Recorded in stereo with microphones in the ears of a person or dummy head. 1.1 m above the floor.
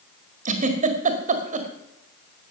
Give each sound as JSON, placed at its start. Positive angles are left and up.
{"t": 0.5, "sound": "a giggle", "side_deg": -45, "distance_m": 1.7}